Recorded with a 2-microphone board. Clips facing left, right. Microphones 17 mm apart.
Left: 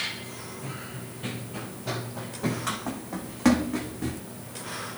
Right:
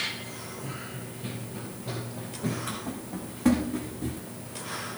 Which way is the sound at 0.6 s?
70° left (ahead or behind).